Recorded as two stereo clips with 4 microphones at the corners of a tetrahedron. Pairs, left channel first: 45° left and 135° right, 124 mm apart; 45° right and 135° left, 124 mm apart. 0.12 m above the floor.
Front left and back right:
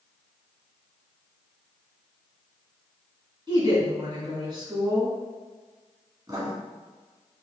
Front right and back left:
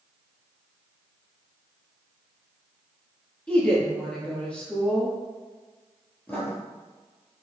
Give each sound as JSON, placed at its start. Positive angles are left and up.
{"t": 3.5, "sound": "a woman speaking", "azimuth_deg": -120, "distance_m": 1.8}
{"t": 6.3, "sound": "writing", "azimuth_deg": -105, "distance_m": 1.4}